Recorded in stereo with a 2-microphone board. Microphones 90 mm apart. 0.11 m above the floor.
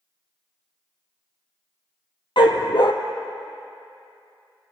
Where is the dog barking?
60° left (ahead or behind), 0.9 m.